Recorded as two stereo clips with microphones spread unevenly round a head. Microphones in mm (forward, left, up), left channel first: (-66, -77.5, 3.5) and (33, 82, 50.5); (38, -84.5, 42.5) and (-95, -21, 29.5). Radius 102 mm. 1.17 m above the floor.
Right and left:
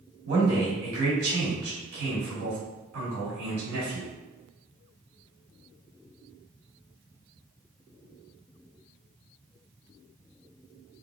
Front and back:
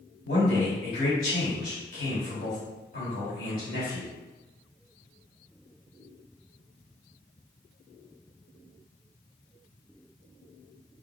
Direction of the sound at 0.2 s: 20° left.